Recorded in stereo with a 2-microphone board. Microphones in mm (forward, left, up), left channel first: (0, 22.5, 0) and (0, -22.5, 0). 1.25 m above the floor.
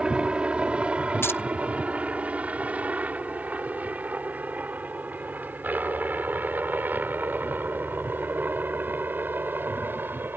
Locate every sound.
0.0 s a helicopter: 25° right (ahead or behind); by 10.4 s 50° right (ahead or behind)
1.2 s keys jangling: 55° left (ahead or behind)